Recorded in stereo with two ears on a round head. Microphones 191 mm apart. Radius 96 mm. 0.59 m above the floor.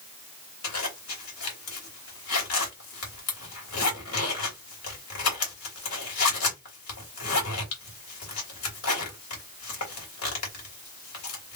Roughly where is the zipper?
Left.